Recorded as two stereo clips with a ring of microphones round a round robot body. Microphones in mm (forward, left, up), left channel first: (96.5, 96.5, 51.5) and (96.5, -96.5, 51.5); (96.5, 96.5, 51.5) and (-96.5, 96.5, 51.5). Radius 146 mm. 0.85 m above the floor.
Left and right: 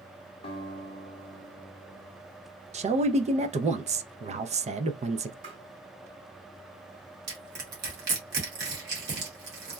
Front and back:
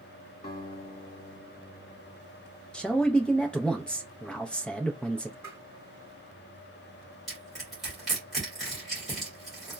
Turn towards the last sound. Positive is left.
turn(degrees=-90)